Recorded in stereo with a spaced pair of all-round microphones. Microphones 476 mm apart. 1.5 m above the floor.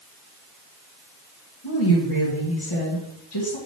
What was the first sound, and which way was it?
A woman speaking, 55° left (ahead or behind).